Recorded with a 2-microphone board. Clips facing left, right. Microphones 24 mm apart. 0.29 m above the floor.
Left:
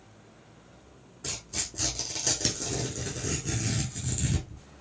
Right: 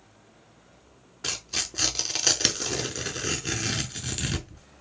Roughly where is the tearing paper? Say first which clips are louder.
Right 6 dB; right.